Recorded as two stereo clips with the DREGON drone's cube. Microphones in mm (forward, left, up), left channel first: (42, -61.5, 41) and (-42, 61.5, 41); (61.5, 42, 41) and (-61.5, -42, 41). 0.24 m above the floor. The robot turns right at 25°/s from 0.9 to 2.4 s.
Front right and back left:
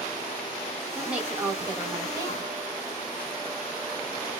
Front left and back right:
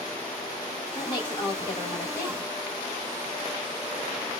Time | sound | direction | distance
0.9 | a woman speaking | 45° left | 1.5 m